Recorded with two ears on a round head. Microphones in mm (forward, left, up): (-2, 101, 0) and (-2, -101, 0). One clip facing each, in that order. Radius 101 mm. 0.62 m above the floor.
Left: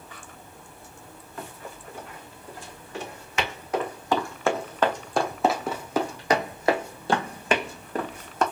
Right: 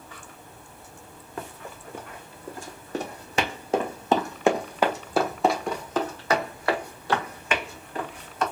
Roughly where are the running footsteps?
Right.